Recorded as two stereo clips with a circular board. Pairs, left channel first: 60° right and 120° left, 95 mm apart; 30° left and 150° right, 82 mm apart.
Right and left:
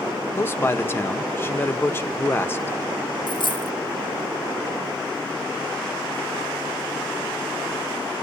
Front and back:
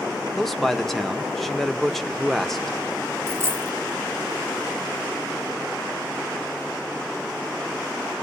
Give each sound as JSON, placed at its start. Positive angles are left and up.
{"t": 0.4, "sound": "a man speaking", "azimuth_deg": -55, "distance_m": 0.8}
{"t": 3.3, "sound": "a dropped coin", "azimuth_deg": -90, "distance_m": 1.3}